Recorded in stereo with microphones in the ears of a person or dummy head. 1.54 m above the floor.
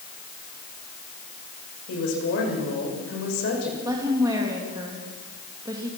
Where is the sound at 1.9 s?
65° left (ahead or behind), 7 m.